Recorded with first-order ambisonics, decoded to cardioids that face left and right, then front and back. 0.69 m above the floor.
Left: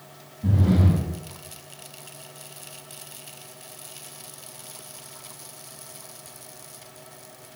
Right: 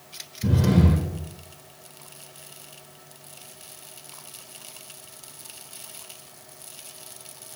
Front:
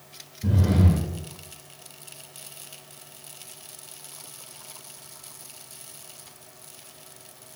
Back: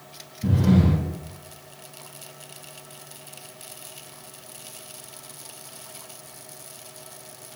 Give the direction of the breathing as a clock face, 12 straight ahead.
4 o'clock.